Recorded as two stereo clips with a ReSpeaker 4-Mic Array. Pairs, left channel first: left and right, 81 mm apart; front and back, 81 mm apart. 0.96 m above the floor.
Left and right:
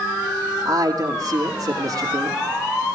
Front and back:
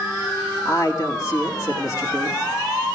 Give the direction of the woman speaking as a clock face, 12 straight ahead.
1 o'clock.